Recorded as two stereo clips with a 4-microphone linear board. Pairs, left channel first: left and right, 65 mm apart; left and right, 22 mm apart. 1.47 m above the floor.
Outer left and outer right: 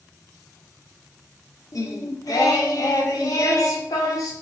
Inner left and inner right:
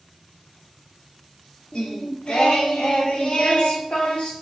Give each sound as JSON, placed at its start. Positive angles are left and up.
{"t": 1.7, "sound": "singing", "side_deg": 60, "distance_m": 0.6}